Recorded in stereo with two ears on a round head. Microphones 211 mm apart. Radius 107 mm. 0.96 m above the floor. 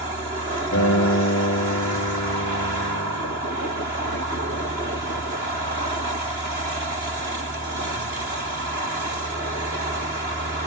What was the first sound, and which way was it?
A guitar, 50° left (ahead or behind).